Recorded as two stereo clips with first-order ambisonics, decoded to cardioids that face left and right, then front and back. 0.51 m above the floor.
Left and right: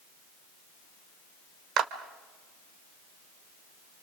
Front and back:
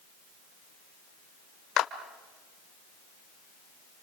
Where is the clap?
45° right, 1.7 m.